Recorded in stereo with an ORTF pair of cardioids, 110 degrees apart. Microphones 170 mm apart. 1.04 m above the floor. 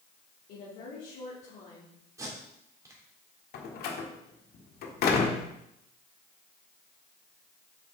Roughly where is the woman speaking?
Ahead left.